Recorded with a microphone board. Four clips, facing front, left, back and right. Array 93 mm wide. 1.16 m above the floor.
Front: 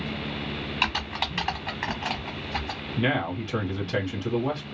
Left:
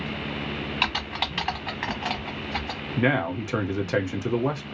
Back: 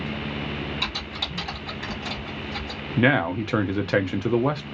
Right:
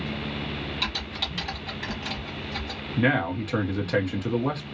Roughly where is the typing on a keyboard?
Ahead left.